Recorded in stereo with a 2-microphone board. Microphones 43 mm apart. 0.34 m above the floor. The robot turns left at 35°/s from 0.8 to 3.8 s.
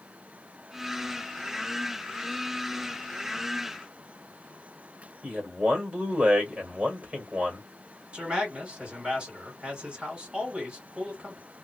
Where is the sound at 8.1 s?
25° right (ahead or behind), 2.0 m.